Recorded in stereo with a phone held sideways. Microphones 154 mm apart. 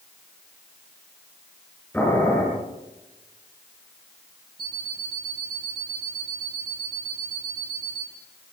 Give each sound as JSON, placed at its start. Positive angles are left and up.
{"t": 1.9, "sound": "boiling", "side_deg": 15, "distance_m": 7.5}
{"t": 4.6, "sound": "an alarm clock", "side_deg": 70, "distance_m": 3.0}